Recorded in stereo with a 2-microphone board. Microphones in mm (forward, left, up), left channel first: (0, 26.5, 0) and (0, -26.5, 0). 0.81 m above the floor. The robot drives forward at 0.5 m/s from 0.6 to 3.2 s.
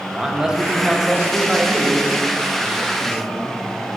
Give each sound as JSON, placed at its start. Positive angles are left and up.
{"t": 0.1, "sound": "a man speaking", "side_deg": -10, "distance_m": 0.6}